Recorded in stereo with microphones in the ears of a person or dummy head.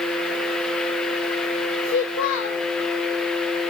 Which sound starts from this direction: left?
A child speaking, at 1.8 s.